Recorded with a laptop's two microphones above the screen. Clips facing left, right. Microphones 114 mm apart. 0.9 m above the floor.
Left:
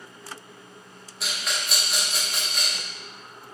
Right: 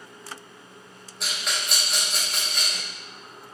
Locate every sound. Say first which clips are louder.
1.2 s a rattle: even; centre (ahead or behind), 0.7 m